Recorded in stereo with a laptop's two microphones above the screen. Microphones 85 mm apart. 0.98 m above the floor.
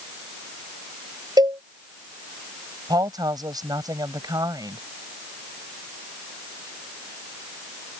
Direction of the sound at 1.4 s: 55° right (ahead or behind).